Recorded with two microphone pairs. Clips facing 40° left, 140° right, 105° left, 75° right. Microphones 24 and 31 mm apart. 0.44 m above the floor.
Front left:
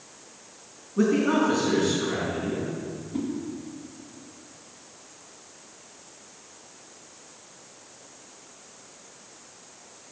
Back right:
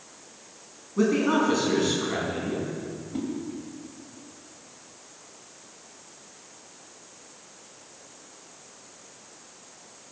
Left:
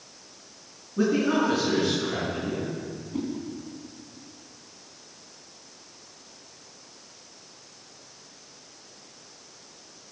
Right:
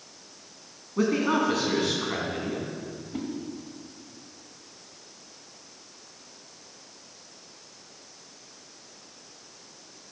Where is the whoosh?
75° right, 2 m.